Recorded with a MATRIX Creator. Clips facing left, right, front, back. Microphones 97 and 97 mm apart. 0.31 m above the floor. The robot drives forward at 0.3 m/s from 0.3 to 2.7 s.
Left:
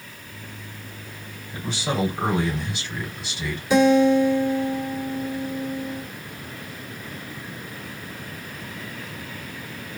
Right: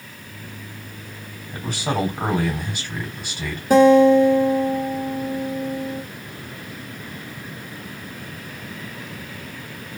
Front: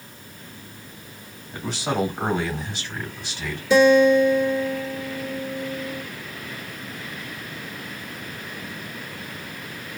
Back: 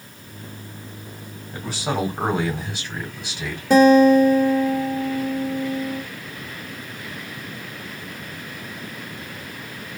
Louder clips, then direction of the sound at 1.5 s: Right 2 dB, even; 95° right.